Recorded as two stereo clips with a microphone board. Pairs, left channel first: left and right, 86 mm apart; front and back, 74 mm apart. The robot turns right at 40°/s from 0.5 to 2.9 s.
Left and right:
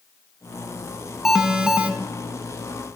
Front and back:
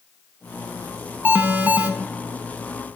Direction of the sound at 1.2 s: 170° right.